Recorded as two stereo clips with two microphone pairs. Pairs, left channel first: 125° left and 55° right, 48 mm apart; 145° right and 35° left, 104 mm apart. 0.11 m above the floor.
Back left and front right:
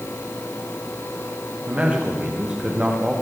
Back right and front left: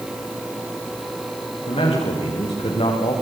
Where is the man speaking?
115° right, 7.5 m; by 3.1 s 125° right, 7.5 m.